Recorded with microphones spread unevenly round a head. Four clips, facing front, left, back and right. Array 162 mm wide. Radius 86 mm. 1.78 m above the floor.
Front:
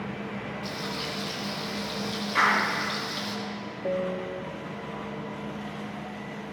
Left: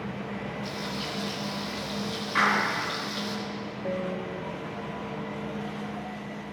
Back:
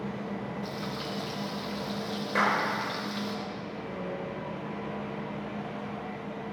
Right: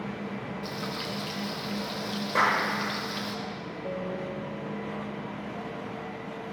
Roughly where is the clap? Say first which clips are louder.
Even, front 2 dB; behind right.